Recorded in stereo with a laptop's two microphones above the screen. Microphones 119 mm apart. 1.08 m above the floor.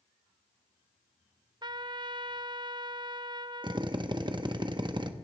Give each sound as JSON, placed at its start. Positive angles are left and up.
{"t": 1.6, "sound": "a trumpet", "side_deg": -40, "distance_m": 0.5}
{"t": 3.6, "sound": "a drill", "side_deg": -40, "distance_m": 0.8}